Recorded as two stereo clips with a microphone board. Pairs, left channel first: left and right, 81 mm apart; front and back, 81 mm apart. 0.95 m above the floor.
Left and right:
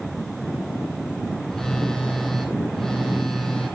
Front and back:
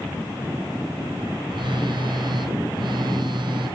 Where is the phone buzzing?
175° left, 2.5 m.